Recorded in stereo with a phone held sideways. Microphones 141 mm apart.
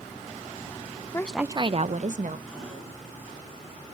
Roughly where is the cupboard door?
Centre.